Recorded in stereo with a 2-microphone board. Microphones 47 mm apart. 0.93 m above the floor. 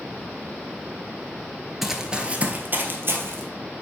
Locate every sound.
1.8 s running footsteps: 5° right (ahead or behind), 0.9 m; by 3.4 s 55° right (ahead or behind), 1.6 m